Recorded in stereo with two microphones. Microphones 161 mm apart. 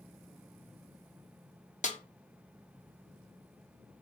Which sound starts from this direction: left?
A snare drum, at 1.8 s.